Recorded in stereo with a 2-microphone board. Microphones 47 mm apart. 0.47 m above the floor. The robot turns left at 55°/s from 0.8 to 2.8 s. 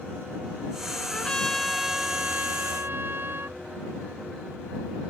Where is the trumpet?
30° left; by 3.6 s 60° right.